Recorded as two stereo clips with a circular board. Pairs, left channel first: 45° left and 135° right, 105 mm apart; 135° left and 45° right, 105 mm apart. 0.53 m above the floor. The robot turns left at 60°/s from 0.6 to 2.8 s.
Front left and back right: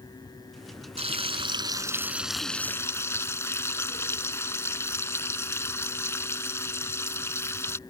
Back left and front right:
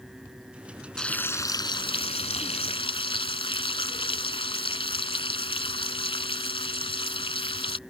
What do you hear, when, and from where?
1.0 s frying: 140° right; by 7.8 s 110° left